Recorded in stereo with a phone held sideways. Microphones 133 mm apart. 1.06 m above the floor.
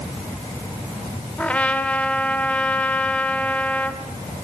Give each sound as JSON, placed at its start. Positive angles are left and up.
{"t": 1.4, "sound": "a trumpet", "side_deg": 10, "distance_m": 2.5}